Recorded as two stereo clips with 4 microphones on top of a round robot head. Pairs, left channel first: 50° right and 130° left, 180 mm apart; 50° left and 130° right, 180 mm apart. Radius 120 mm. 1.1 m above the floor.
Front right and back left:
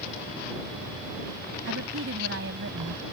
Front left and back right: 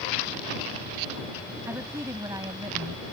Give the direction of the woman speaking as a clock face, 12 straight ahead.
7 o'clock.